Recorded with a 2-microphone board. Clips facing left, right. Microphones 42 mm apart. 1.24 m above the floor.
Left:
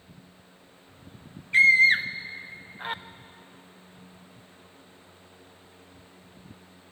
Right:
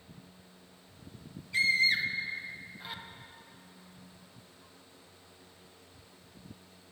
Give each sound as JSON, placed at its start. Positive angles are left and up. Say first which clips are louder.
{"t": 1.5, "sound": "a scream", "louder": "left 9 dB", "side_deg": 45, "distance_m": 1.3}